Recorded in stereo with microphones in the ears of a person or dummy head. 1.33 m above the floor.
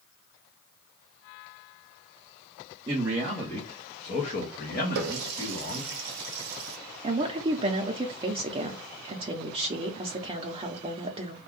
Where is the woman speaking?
25° right (ahead or behind), 0.6 m.